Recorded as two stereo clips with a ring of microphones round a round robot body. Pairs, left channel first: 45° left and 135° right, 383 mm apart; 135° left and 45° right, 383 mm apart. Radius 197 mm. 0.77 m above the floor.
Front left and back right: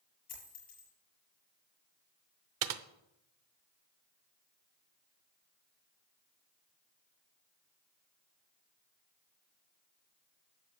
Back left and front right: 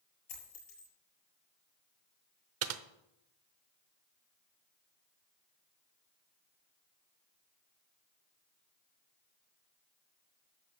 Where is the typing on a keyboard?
95° right, 0.7 m.